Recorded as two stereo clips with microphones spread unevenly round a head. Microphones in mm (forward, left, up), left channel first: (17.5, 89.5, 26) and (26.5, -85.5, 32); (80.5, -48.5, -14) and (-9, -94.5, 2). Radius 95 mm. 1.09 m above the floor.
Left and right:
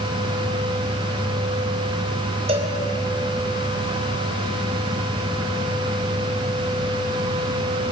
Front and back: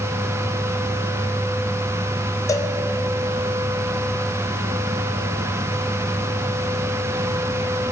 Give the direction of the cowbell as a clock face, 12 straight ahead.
1 o'clock.